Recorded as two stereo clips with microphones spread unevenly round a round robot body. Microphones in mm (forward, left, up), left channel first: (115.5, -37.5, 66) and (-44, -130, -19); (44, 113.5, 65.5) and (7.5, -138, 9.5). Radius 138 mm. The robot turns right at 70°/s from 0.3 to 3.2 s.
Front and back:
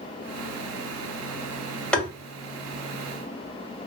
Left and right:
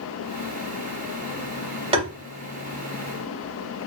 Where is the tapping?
95° right, 1.3 m; by 2.1 s 85° right, 1.3 m.